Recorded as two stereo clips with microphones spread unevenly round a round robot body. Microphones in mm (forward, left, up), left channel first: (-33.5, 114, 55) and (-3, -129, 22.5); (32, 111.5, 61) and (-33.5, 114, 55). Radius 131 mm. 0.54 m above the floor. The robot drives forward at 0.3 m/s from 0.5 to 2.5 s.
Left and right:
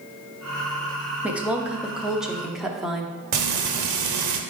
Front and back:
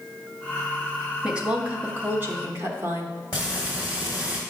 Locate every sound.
1.2 s a woman speaking: 140° right, 0.7 m; by 3.1 s 165° right, 0.9 m
3.3 s frying: 70° right, 0.8 m